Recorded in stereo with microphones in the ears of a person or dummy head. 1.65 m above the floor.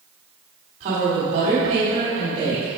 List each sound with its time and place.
0.8 s a woman speaking: 45° right (ahead or behind), 3 m; by 2.7 s 30° right (ahead or behind), 4.5 m